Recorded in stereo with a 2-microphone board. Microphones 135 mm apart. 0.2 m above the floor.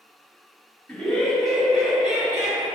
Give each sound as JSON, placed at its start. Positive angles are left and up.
{"t": 0.9, "sound": "laughter", "side_deg": 10, "distance_m": 1.6}